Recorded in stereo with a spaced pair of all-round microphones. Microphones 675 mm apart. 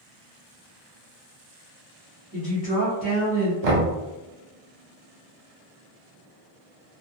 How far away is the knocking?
About 0.7 m.